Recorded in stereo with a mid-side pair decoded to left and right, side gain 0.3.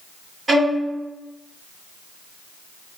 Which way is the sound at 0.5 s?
45° right.